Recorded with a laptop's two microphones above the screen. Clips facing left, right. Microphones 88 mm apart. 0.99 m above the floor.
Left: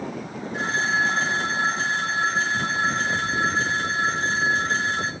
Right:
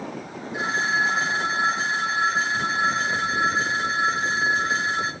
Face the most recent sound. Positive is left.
turn(degrees=-10)  # may be behind; listen again after turning